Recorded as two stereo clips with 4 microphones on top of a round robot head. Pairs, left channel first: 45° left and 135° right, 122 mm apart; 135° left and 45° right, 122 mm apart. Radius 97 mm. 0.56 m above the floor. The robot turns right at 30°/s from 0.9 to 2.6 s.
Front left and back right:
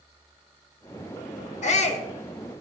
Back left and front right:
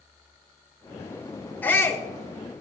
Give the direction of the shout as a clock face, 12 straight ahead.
10 o'clock.